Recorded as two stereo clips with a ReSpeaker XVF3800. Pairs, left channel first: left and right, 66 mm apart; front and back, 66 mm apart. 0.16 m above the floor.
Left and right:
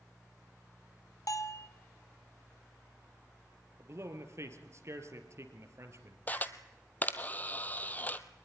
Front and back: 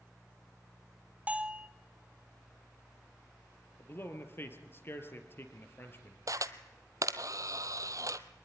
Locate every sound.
1.3 s a bell: 115° left, 1.0 m
3.8 s a man speaking: 50° right, 3 m
6.3 s a camera shutter: 150° left, 1.0 m